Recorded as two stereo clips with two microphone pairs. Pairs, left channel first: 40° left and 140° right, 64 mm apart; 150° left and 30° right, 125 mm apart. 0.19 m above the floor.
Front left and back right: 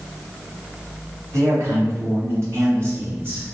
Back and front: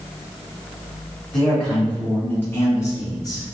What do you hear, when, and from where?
1.3 s a man speaking: 130° right, 1.8 m; by 3.5 s straight behind, 1.3 m